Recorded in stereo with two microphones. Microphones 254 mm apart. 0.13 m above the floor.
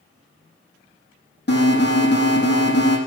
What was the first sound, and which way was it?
An alarm, 45° left (ahead or behind).